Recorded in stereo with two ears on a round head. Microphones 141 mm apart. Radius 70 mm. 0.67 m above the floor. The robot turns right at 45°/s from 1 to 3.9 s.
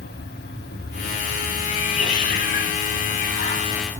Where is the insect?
70° left, 2.5 m; by 4.0 s 160° right, 2.5 m.